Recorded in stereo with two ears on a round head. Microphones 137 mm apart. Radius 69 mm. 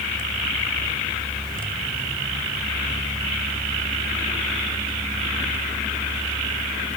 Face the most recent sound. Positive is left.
No sound to turn to.